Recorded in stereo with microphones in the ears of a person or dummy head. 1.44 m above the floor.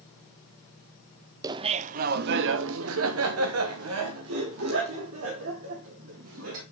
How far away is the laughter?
About 0.6 m.